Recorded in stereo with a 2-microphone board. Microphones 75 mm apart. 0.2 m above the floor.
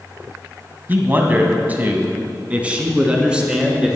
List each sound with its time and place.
0.9 s a man speaking: 25° right (ahead or behind), 1.5 m; by 4.0 s 10° right (ahead or behind), 2.5 m